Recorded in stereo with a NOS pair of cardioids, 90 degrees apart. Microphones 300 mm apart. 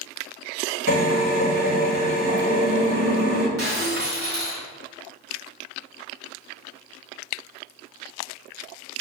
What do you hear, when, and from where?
0.9 s a drill: 35° right, 1.4 m
3.6 s breaking glass: 30° right, 1.3 m